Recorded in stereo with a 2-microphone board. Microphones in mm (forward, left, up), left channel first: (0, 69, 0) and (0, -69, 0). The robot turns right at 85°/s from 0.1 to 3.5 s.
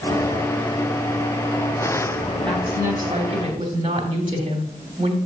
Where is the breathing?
No breathing in this recording.